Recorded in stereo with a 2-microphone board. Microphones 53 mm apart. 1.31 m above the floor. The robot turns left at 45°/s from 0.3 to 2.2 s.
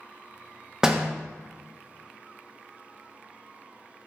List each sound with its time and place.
0.8 s a door slam: 10° right (ahead or behind), 0.6 m; by 1.1 s centre (ahead or behind), 0.6 m